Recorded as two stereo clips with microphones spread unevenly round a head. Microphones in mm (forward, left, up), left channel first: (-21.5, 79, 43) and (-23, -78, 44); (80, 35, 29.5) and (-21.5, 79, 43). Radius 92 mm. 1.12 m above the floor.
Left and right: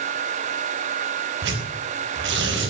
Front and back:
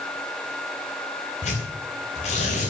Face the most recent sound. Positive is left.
turn(degrees=-70)